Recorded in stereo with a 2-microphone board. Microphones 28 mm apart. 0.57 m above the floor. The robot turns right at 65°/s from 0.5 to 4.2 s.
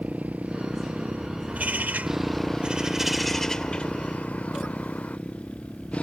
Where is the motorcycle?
55° right (ahead or behind); by 6.0 s 45° left (ahead or behind).